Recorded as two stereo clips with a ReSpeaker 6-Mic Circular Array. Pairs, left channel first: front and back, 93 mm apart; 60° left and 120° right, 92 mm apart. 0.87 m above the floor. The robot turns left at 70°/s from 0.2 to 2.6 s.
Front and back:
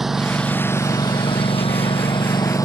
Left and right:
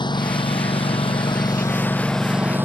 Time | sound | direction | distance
0.0 | a lawn mower | 95° left | ?